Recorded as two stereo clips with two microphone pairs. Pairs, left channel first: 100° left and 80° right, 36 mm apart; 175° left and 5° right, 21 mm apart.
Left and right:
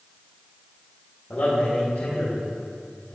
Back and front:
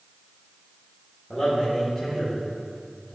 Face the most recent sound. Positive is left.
turn(degrees=85)